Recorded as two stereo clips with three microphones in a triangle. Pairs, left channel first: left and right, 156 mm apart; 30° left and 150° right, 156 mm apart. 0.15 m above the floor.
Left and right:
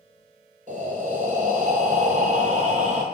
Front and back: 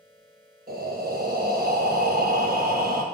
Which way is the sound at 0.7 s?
130° right.